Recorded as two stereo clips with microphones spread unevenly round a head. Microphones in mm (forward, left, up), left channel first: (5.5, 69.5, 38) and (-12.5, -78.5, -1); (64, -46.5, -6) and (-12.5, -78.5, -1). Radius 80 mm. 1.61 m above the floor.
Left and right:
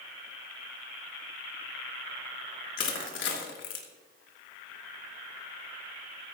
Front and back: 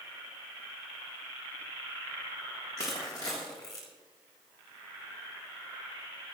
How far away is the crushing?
About 2.5 m.